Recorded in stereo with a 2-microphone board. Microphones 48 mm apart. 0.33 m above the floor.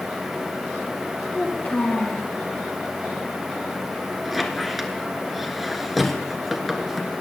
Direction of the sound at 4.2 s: Centre (ahead or behind).